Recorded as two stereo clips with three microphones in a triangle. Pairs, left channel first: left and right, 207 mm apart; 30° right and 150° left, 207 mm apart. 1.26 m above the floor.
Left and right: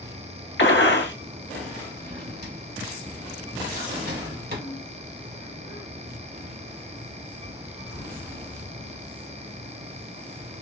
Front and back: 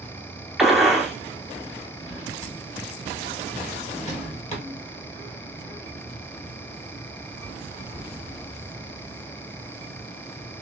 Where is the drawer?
80° right, 1.6 m.